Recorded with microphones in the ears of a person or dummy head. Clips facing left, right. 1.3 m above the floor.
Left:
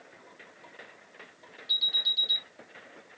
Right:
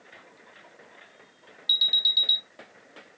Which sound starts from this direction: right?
An alarm, at 1.7 s.